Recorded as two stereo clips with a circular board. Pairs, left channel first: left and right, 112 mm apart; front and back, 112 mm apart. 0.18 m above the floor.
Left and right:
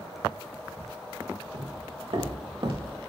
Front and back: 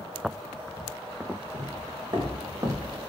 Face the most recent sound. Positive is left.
turn(degrees=-120)